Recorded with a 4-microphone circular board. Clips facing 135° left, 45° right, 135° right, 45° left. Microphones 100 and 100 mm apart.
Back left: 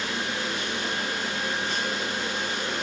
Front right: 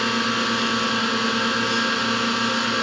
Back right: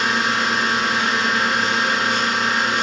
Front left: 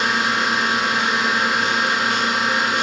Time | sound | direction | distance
0.0 | a drone | 40° right | ?